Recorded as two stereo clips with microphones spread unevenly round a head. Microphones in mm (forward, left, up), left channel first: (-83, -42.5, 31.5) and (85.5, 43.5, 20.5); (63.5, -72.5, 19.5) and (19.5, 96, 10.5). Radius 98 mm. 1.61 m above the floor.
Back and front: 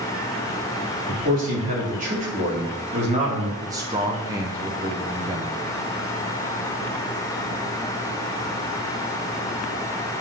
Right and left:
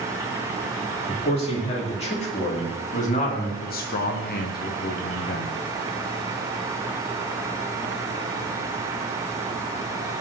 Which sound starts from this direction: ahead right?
A man speaking, at 3.6 s.